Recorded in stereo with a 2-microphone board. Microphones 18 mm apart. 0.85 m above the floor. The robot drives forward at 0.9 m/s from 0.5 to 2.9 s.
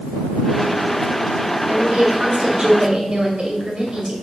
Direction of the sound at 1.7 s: 70° right (ahead or behind).